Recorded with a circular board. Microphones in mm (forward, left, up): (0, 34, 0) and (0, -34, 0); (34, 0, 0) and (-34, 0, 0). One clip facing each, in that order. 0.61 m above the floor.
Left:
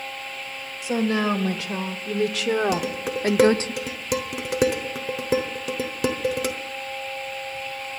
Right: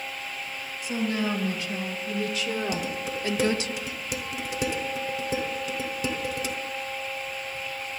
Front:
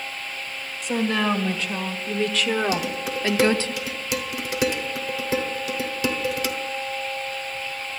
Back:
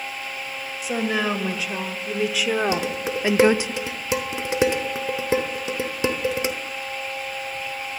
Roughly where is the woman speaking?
Left.